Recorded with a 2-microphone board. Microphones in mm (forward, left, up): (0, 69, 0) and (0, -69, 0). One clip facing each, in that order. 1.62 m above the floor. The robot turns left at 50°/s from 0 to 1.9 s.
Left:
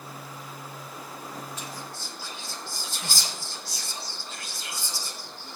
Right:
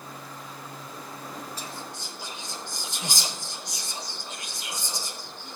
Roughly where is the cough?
I don't hear a cough.